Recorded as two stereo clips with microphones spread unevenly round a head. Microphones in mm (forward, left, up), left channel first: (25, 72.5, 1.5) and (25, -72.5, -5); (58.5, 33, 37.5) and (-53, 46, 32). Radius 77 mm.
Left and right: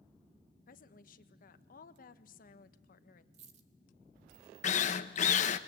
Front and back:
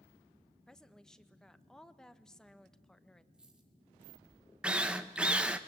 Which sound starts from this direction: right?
A dropped coin, at 3.3 s.